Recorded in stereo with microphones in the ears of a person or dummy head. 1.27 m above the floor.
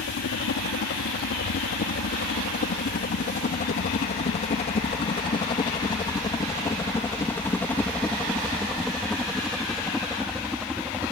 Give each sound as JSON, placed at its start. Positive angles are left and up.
{"t": 0.0, "sound": "a helicopter", "side_deg": 60}